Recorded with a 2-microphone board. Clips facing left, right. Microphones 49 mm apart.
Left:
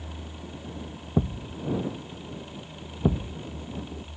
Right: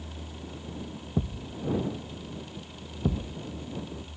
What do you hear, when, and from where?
1.2 s a thud: 25° left (ahead or behind)